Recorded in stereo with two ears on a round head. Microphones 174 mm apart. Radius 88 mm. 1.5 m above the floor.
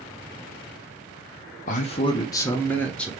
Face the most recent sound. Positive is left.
turn(degrees=5)  # may be behind; listen again after turning